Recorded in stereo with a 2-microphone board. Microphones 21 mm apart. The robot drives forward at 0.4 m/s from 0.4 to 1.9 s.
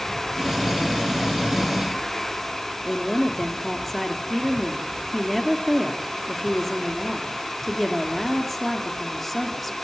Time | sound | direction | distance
2.9 | a woman speaking | centre (ahead or behind) | 2.5 m